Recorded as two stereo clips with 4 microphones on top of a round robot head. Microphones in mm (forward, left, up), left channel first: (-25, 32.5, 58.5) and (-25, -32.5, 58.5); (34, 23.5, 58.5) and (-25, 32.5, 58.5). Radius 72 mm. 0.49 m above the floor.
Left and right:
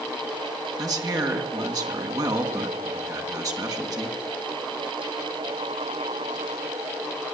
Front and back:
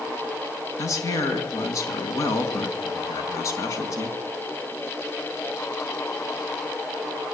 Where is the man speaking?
50° right, 4.5 m.